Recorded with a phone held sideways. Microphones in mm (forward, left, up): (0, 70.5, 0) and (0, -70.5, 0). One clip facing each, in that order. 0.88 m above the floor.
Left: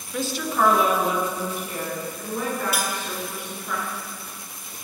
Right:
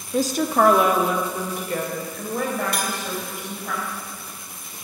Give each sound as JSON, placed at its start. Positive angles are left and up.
{"t": 0.1, "sound": "a woman speaking", "side_deg": -30, "distance_m": 1.1}
{"t": 2.7, "sound": "cutlery clinking", "side_deg": 5, "distance_m": 1.8}